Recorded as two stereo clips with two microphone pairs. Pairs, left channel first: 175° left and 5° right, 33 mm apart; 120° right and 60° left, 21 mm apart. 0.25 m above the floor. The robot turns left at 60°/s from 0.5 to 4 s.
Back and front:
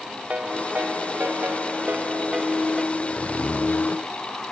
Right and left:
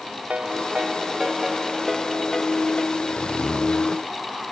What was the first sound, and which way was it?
A ringtone, 45° left.